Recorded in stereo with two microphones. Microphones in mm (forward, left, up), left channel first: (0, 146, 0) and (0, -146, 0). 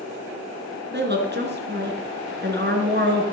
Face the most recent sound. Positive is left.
turn(degrees=-35)  # may be behind; listen again after turning